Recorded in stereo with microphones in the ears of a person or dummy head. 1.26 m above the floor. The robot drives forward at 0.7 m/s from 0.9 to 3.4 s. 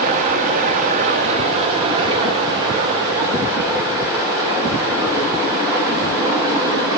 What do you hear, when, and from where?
0.0 s running water: 45° right (ahead or behind), 1.2 m; by 7.0 s 20° right (ahead or behind), 2.5 m